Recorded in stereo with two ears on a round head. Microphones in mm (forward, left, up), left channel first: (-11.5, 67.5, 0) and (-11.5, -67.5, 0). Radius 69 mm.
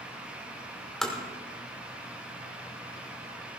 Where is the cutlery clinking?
I don't hear cutlery clinking.